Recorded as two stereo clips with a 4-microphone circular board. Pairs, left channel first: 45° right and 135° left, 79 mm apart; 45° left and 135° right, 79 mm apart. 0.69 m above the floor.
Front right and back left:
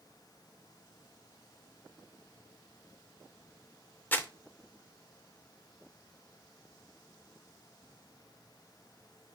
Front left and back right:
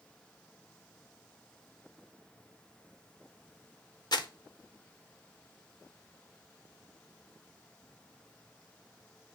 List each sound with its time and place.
4.1 s crumpling: 20° left, 0.6 m